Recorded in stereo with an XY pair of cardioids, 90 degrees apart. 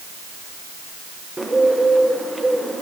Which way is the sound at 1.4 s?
20° right.